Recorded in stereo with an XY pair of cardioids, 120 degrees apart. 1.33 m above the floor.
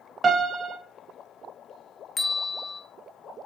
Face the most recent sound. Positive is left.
turn(degrees=25)